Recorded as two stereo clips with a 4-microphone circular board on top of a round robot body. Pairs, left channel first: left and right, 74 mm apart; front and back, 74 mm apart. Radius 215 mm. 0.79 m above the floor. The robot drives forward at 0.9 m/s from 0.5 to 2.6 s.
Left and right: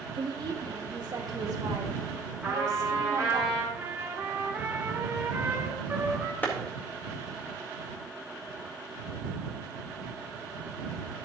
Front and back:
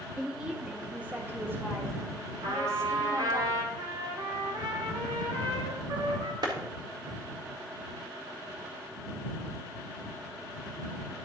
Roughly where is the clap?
Behind left.